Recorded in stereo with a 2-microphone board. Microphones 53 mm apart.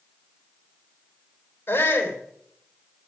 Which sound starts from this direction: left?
A shout, at 1.7 s.